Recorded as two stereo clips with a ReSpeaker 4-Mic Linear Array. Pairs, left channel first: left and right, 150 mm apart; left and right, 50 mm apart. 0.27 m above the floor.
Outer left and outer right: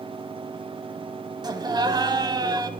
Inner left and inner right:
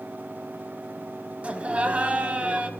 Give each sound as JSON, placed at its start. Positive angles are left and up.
{"t": 1.4, "sound": "laughter", "side_deg": -30, "distance_m": 1.6}